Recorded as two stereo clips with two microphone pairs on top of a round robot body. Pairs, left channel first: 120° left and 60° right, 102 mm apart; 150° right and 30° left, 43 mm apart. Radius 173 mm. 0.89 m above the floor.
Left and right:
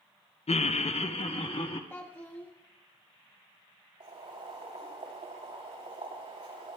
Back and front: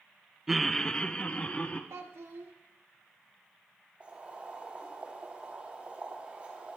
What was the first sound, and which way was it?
Laughter, 115° left.